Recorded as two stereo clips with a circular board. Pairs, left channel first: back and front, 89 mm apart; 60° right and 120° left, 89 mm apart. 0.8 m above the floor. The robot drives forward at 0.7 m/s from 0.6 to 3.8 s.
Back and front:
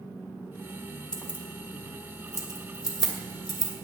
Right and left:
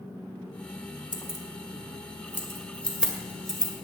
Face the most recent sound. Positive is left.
turn(degrees=-145)